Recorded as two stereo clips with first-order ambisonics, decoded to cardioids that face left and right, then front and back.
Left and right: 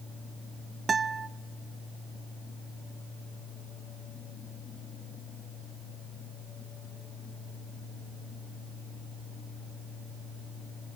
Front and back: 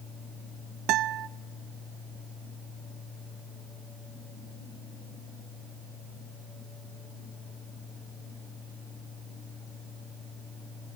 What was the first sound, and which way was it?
A guitar, 160° right.